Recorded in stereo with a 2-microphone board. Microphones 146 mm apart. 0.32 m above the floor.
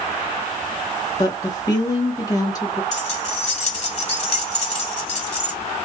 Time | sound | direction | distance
1.2 | a woman speaking | 25° left (ahead or behind) | 1.0 m
2.9 | keys jangling | 50° left (ahead or behind) | 1.3 m